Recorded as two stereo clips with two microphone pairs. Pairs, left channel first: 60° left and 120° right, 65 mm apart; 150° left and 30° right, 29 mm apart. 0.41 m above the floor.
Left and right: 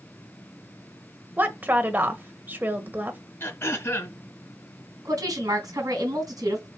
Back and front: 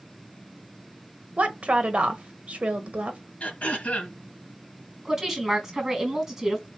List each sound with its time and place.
1.4 s a woman speaking: 60° right, 1.4 m
3.4 s throat clearing: 110° left, 2.5 m
5.0 s a woman speaking: 100° right, 3.5 m